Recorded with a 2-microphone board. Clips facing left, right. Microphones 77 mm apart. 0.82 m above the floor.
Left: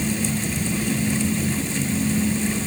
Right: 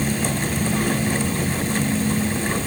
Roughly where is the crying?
No crying in this recording.